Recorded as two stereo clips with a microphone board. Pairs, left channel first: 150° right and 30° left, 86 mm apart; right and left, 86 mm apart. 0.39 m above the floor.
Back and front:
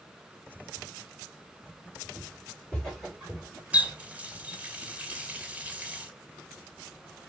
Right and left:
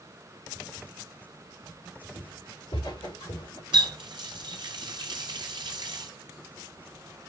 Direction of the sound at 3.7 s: 100° left.